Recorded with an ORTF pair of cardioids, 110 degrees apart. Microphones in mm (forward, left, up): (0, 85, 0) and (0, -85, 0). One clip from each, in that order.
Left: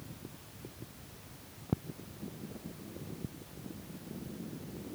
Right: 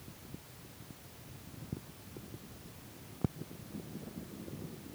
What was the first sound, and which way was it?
Only background noise.